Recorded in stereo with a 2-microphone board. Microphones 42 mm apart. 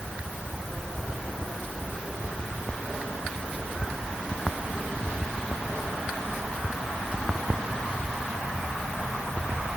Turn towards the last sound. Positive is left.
No sound to turn to.